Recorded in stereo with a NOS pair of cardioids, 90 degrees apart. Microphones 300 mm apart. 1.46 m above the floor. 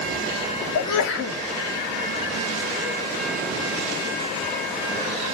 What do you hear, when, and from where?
0.8 s a sneeze: 60° left, 2.5 m